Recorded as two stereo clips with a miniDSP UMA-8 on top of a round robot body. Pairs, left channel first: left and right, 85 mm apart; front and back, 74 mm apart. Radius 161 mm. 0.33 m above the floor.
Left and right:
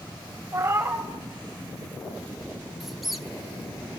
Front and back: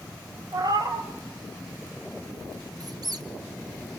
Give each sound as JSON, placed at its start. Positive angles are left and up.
{"t": 0.5, "sound": "a cat meowing", "azimuth_deg": -150, "distance_m": 1.7}
{"t": 2.8, "sound": "a squeak", "azimuth_deg": 180, "distance_m": 1.5}